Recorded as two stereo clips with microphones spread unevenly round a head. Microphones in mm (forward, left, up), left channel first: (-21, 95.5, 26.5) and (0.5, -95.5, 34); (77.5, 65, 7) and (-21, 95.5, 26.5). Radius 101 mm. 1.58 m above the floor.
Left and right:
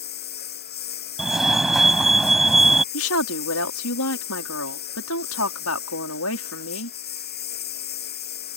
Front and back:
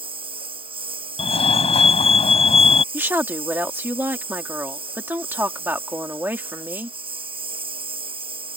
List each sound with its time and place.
0.0 s a lawn mower: 135° left
1.2 s a fire alarm: 5° left
2.9 s a woman speaking: 95° left